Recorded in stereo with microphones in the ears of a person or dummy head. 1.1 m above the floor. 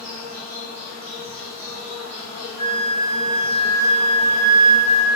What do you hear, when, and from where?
0.0 s an insect: 40° right (ahead or behind), 1.1 m
2.6 s a flute: 30° left (ahead or behind), 0.6 m